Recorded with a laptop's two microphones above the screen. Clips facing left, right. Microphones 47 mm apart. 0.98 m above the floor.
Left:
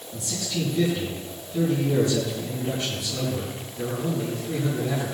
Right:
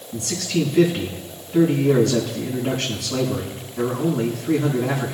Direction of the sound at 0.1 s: 85° right.